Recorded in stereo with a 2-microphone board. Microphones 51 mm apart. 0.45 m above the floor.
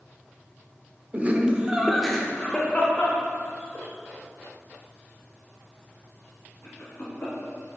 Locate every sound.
1.1 s laughter: 35° right (ahead or behind), 0.9 m; by 7.3 s 50° left (ahead or behind), 4 m